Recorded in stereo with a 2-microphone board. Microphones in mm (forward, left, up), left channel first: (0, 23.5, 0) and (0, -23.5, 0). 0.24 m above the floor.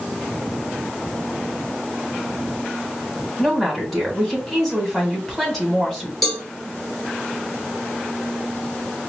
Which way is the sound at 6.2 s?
Centre (ahead or behind).